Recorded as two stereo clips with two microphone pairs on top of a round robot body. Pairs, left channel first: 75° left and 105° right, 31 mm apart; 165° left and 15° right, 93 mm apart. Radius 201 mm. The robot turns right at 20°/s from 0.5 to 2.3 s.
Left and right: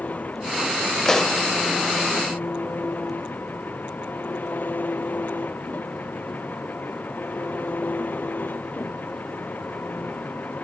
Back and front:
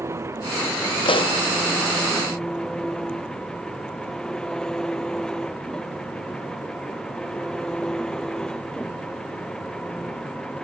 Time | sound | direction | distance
0.0 | an engine running | 45° left | ?
1.1 | a pop | 140° left | ?